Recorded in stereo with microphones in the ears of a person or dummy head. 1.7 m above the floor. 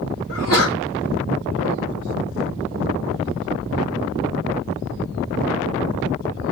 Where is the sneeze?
45° left (ahead or behind), 3 m.